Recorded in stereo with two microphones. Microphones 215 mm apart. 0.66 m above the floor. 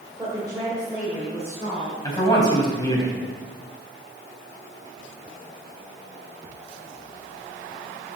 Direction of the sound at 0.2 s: 15° right (ahead or behind).